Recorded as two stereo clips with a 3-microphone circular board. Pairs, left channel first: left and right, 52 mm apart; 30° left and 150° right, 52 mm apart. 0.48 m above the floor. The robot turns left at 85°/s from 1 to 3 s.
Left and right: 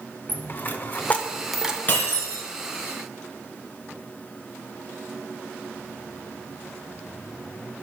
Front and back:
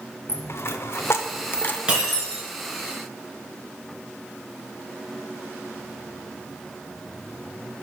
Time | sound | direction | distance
0.3 | a dropped coin | 45° left | 0.6 m
1.9 | breaking glass | 140° left | 3 m